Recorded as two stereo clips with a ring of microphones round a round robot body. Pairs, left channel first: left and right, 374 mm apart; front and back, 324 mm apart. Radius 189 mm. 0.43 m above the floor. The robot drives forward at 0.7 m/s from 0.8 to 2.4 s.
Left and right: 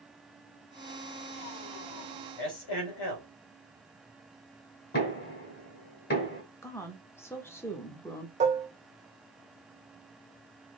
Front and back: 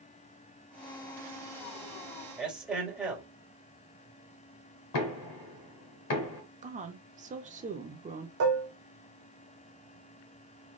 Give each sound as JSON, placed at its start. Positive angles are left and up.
{"t": 2.4, "sound": "a man speaking", "azimuth_deg": 90, "distance_m": 2.5}
{"t": 4.9, "sound": "knocking", "azimuth_deg": 25, "distance_m": 1.8}
{"t": 6.6, "sound": "a woman speaking", "azimuth_deg": 165, "distance_m": 0.8}
{"t": 8.4, "sound": "dishes clattering", "azimuth_deg": -155, "distance_m": 0.7}